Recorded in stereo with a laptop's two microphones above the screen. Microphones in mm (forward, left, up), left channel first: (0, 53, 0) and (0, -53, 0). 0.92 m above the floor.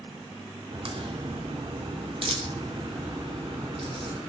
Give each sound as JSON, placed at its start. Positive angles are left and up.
{"t": 0.7, "sound": "a crack", "side_deg": -60, "distance_m": 2.5}